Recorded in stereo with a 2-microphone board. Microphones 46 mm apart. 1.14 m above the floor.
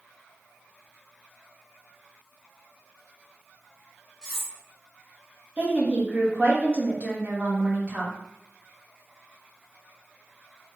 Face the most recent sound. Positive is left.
turn(degrees=-30)  # may be behind; listen again after turning